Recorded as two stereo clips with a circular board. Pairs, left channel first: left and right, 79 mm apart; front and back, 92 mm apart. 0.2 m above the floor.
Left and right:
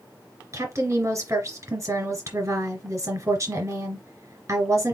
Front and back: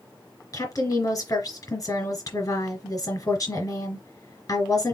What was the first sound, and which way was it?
A woman speaking, 40° right.